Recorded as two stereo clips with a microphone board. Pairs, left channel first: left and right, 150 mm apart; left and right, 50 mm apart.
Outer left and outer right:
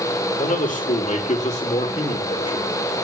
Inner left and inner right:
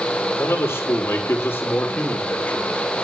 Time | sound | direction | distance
0.4 | a man speaking | 60° left (ahead or behind) | 3.5 m